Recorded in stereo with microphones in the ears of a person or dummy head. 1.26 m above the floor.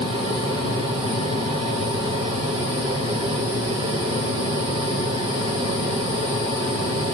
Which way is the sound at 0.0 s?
25° right (ahead or behind).